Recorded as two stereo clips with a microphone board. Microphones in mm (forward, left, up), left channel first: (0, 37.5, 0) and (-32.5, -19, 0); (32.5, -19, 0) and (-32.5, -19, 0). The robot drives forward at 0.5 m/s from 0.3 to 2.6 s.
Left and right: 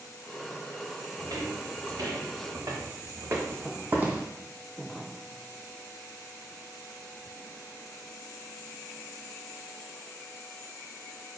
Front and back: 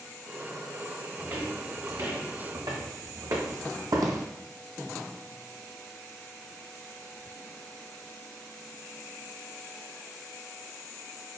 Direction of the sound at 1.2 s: 130° right.